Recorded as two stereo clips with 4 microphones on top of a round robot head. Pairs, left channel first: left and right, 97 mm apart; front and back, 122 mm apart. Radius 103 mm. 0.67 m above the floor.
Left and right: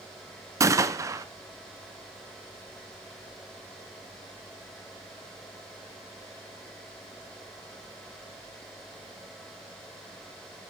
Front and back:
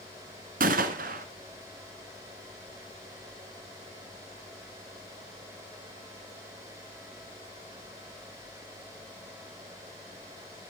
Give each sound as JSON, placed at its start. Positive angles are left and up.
{"t": 0.6, "sound": "a gunshot", "azimuth_deg": -150, "distance_m": 1.5}